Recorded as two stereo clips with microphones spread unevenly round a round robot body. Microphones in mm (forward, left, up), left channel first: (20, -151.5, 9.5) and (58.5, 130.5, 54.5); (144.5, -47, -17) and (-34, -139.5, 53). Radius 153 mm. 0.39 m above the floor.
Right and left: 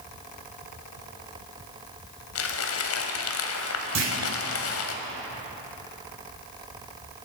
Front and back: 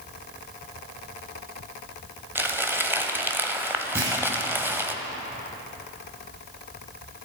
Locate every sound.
2.4 s crumpling: 65° right, 1.3 m
4.0 s a clunk: 120° left, 3.5 m